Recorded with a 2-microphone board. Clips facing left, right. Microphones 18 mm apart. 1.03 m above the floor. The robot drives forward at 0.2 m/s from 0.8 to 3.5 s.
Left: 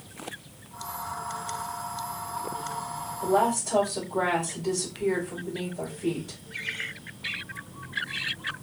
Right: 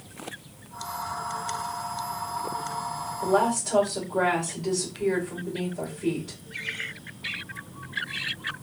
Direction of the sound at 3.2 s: 55° right (ahead or behind).